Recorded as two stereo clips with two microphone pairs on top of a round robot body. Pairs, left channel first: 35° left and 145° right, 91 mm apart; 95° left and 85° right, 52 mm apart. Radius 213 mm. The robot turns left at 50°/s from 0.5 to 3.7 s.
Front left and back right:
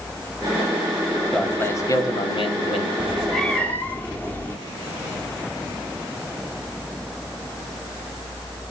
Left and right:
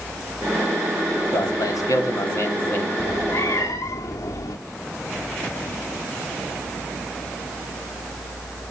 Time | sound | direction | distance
1.3 | a man speaking | 115° left | 2.5 m
3.0 | a cat meowing | 140° left | 0.9 m